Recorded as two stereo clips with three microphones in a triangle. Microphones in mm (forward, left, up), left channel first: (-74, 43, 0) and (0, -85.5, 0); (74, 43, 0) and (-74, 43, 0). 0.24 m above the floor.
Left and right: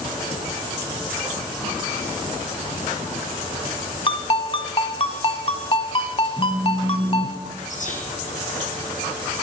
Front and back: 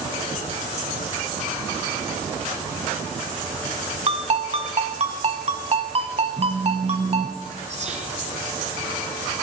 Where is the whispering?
145° left, 3.5 m.